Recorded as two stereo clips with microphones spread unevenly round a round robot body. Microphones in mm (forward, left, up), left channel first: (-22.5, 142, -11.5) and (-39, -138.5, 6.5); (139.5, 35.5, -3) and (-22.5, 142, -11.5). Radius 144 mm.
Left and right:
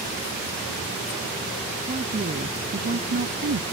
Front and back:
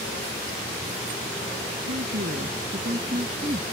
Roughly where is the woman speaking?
Behind.